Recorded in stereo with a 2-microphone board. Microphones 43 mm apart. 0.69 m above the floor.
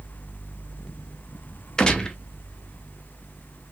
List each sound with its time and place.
1.8 s a gunshot: 15° left (ahead or behind), 0.7 m